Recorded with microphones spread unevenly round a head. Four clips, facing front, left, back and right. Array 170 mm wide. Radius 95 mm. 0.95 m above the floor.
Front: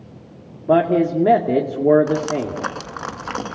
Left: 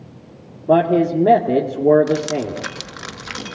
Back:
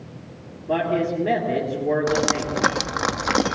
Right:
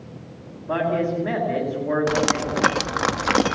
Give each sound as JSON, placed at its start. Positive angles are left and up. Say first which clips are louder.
{"t": 0.7, "sound": "a man speaking", "louder": "left 8 dB, front 6 dB", "azimuth_deg": 55, "distance_m": 1.9}
{"t": 2.1, "sound": "dripping", "louder": "left 1 dB, front 1 dB", "azimuth_deg": -135, "distance_m": 0.8}